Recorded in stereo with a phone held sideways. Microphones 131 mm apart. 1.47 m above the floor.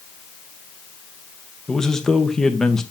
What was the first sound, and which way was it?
A man speaking, 5° left (ahead or behind).